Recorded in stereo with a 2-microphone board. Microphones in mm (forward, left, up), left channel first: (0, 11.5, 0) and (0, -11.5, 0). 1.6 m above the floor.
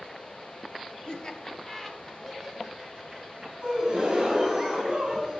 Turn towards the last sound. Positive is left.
turn(degrees=-35)  # may be behind; listen again after turning